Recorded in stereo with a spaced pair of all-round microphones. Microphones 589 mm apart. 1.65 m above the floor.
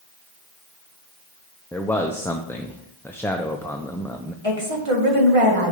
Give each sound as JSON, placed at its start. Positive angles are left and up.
{"t": 1.7, "sound": "a man speaking", "side_deg": 5, "distance_m": 0.6}
{"t": 4.4, "sound": "a woman speaking", "side_deg": -60, "distance_m": 2.0}